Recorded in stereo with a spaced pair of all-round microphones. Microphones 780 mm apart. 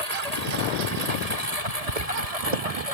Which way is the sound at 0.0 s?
50° right (ahead or behind).